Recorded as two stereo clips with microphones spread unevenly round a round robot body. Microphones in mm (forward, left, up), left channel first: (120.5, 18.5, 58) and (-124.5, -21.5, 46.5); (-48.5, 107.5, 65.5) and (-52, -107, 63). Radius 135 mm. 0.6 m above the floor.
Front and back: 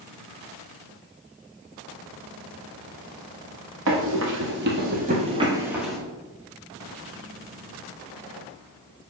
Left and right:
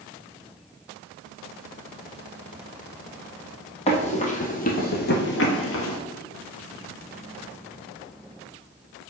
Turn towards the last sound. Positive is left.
turn(degrees=95)